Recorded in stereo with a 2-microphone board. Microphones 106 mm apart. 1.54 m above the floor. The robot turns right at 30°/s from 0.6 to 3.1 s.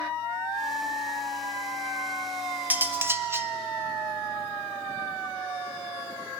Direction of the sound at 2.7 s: 15° right (ahead or behind).